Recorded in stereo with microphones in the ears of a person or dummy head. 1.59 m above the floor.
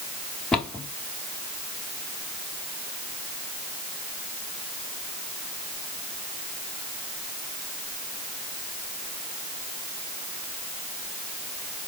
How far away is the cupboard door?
About 0.8 m.